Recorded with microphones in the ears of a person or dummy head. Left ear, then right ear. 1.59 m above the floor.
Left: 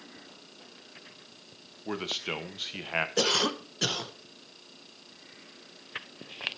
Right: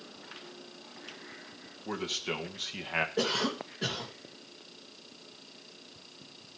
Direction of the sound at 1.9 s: 20° left (ahead or behind).